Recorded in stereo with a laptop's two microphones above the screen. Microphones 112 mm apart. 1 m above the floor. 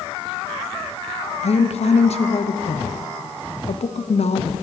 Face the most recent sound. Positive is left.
turn(degrees=70)  # may be behind; listen again after turning